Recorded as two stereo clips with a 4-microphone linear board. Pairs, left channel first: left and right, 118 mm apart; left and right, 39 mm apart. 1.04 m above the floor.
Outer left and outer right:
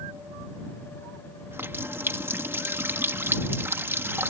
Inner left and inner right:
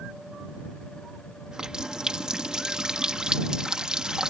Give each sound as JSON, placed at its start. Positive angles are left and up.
{"t": 1.5, "sound": "a running tap", "side_deg": -20}